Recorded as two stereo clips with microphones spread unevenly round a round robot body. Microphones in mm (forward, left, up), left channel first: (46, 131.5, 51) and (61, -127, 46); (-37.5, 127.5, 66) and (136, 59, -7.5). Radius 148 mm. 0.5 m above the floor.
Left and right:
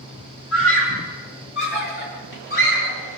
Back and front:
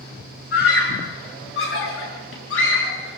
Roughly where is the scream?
Behind left.